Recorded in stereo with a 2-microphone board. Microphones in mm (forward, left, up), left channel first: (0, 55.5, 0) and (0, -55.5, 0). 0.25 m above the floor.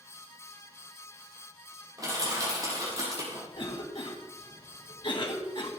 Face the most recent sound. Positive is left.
turn(degrees=50)  # may be behind; listen again after turning